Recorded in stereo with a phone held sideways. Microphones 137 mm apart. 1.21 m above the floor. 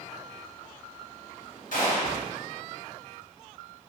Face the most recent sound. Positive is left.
turn(degrees=60)  # may be behind; listen again after turning